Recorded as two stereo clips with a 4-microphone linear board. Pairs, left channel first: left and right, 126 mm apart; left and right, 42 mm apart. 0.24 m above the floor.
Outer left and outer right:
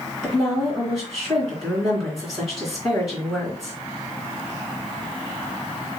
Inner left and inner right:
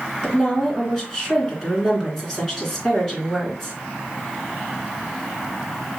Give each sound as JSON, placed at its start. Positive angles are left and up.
{"t": 0.2, "sound": "a woman speaking", "side_deg": 0, "distance_m": 3.0}